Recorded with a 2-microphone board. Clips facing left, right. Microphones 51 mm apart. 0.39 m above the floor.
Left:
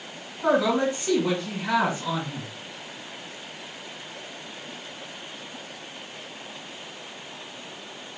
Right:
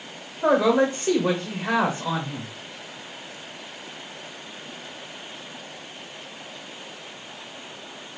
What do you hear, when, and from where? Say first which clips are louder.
0.4 s a man speaking: right 3 dB; 45° right (ahead or behind), 1.1 m